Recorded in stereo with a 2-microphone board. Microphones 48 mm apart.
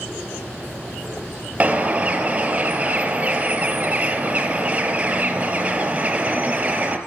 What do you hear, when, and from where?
1.6 s a bird: 25° right (ahead or behind), 0.7 m